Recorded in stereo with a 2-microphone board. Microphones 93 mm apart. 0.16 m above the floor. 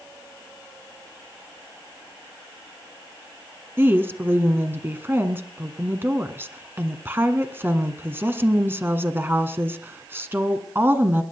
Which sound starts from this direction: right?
A woman speaking, at 3.8 s.